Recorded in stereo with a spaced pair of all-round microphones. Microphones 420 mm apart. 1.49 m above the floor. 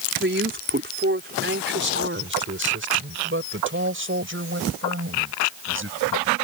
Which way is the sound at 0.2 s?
25° right (ahead or behind).